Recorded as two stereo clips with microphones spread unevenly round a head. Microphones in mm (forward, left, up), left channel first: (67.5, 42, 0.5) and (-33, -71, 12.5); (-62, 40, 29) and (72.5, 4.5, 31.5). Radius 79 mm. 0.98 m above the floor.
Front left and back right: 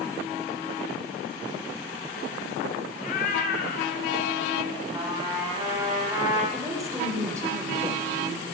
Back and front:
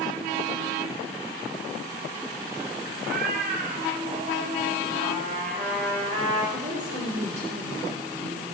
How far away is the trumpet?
About 5 m.